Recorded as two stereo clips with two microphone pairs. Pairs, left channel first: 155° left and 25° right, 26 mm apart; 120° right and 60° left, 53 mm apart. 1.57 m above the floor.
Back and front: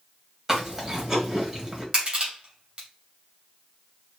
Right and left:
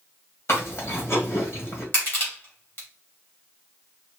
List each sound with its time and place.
0.5 s chewing: 90° right, 2.5 m
1.9 s crushing: 75° right, 3 m